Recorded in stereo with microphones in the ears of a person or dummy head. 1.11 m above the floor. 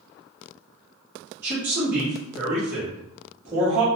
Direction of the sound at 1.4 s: 15° right (ahead or behind).